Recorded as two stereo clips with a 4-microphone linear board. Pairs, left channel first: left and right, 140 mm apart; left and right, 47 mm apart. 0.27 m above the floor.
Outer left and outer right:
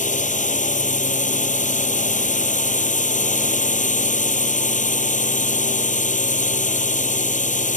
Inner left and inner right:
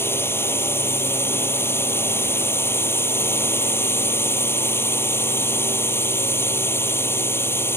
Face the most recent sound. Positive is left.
turn(degrees=65)  # may be behind; listen again after turning